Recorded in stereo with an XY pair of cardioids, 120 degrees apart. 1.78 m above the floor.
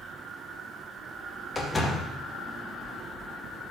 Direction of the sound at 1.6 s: 15° left.